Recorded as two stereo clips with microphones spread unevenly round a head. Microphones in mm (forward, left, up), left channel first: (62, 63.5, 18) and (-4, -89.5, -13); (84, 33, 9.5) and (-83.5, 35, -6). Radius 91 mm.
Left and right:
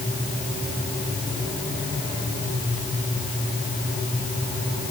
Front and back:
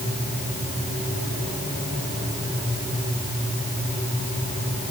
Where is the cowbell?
I don't hear a cowbell.